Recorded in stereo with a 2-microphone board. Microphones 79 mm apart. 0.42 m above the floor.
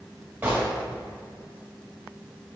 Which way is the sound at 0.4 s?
20° right (ahead or behind).